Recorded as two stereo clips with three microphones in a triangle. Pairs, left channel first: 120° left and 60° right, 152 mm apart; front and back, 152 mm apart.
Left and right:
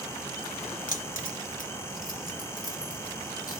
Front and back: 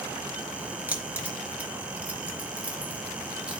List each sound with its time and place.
0.9 s keys jangling: 105° left, 1.5 m; by 3.6 s 100° left, 3 m